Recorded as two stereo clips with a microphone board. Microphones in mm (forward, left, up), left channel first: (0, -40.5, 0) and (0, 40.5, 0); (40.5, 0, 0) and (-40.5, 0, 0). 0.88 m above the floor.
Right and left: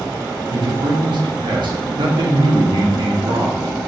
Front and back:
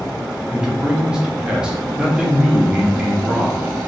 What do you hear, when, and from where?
0.5 s a man speaking: 100° left, 0.9 m